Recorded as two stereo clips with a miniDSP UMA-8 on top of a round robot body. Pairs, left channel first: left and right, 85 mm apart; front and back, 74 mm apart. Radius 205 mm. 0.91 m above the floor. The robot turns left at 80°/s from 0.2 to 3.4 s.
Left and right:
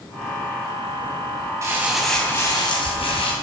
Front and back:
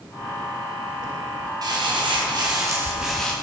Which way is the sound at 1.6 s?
145° right.